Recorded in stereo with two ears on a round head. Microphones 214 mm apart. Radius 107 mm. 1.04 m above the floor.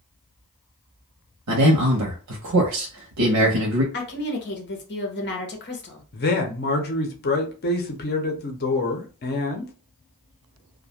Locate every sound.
1.5 s a man speaking: 75° right (ahead or behind), 0.7 m
3.9 s a woman speaking: 45° left (ahead or behind), 0.9 m
6.1 s a man speaking: 40° left (ahead or behind), 0.7 m